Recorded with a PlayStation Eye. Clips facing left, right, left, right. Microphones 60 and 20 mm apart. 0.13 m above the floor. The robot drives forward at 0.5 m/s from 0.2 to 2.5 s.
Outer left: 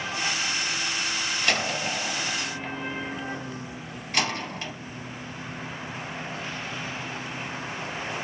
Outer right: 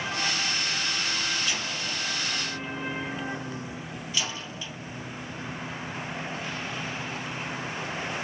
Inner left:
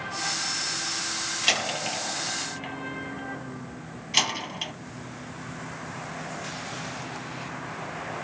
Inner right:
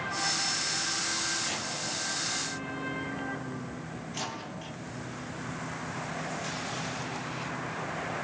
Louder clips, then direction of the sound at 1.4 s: Outer left 5 dB, inner left 8 dB; 65° left (ahead or behind).